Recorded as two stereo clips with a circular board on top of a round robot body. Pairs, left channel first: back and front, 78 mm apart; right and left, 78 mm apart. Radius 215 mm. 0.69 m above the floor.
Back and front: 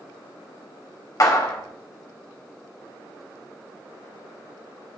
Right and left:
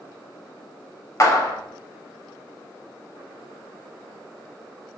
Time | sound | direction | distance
1.2 | a clap | 140° right | 1.4 m